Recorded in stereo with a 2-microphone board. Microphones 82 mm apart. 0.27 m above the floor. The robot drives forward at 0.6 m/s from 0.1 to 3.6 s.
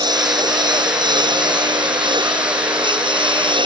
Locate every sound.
0.0 s a lawn mower: 60° right (ahead or behind); by 3.6 s 75° right (ahead or behind)